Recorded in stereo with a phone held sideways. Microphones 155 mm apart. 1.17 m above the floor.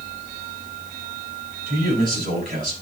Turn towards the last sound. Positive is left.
turn(degrees=-60)  # may be behind; listen again after turning